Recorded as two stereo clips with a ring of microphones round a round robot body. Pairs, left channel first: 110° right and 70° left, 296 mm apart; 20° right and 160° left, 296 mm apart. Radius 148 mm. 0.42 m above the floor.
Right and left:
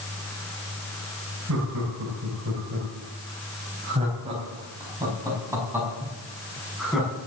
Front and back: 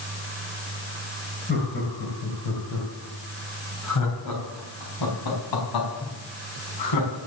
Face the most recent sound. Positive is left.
turn(degrees=-20)